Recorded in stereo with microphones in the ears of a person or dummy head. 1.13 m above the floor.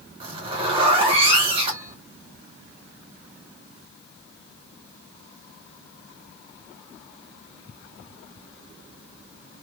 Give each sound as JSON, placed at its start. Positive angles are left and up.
{"t": 0.2, "sound": "a zipper", "side_deg": -35, "distance_m": 1.4}